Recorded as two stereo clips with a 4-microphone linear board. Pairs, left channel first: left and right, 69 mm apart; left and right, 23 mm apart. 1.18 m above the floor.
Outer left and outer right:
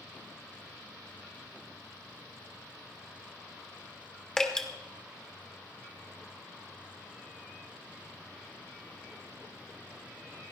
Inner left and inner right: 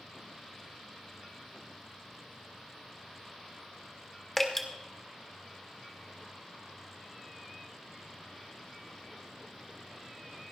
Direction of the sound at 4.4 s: 10° left (ahead or behind).